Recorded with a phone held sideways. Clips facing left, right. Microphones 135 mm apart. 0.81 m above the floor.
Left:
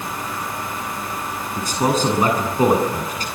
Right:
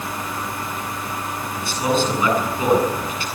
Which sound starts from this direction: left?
A man speaking, at 1.6 s.